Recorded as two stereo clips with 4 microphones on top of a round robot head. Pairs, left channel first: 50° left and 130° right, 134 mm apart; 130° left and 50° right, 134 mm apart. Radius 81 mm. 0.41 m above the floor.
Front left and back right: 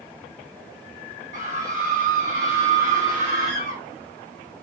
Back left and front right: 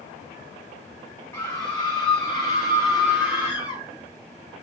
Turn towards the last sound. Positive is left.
turn(degrees=-130)